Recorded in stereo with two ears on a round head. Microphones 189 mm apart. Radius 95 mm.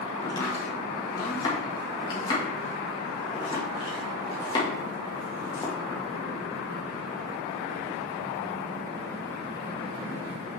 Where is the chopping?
20° left (ahead or behind), 1.7 m.